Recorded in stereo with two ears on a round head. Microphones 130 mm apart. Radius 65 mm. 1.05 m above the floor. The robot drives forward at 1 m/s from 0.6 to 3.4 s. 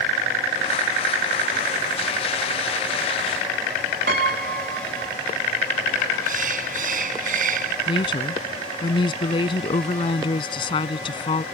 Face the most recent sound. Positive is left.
turn(degrees=35)  # may be behind; listen again after turning